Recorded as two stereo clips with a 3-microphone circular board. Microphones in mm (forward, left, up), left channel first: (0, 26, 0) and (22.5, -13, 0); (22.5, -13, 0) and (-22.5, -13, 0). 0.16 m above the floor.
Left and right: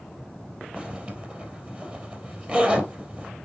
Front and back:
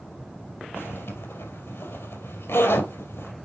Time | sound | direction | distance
0.8 | a zipper | 5° right | 3 m